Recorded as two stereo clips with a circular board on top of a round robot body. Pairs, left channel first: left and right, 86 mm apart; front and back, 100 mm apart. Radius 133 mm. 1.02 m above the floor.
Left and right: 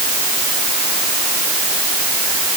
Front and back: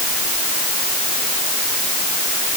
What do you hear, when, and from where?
Only background noise.